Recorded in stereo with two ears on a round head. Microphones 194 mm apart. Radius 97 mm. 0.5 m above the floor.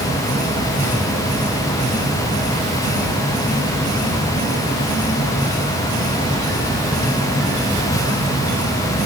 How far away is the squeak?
I don't hear a squeak.